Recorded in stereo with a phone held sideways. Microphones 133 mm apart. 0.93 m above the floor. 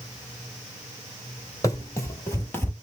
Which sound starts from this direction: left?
Running footsteps, at 1.6 s.